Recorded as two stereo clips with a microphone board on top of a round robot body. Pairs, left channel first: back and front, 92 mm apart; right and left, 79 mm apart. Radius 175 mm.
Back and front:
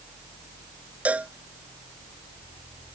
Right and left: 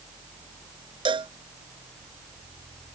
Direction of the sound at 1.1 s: 75° left.